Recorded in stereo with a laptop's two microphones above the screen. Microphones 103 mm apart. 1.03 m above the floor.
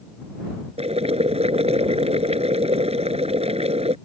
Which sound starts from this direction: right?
Boiling, at 0.8 s.